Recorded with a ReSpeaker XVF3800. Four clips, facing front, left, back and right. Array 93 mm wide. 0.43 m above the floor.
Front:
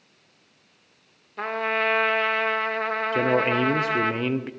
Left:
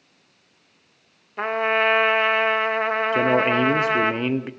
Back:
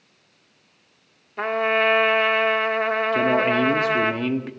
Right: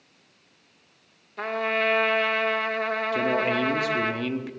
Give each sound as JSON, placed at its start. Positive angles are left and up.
{"t": 1.4, "sound": "a trumpet", "azimuth_deg": 120, "distance_m": 0.7}
{"t": 3.1, "sound": "a man speaking", "azimuth_deg": 70, "distance_m": 0.8}